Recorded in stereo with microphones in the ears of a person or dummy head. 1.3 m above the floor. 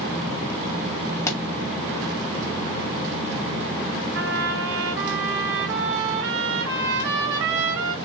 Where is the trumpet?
65° right (ahead or behind), 2.5 m.